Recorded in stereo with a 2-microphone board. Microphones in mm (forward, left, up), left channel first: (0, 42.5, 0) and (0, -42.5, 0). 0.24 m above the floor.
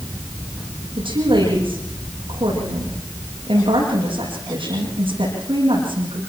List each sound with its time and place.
1.0 s a woman speaking: 80° right, 9.5 m